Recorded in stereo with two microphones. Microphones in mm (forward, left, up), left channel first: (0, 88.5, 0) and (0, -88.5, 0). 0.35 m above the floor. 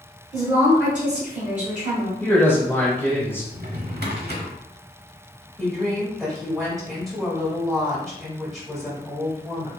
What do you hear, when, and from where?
0.3 s a woman speaking: 15° right (ahead or behind), 1.2 m
2.2 s a man speaking: 15° left (ahead or behind), 1.3 m
3.5 s a drawer: 65° right (ahead or behind), 0.8 m
5.6 s a woman speaking: centre (ahead or behind), 1.7 m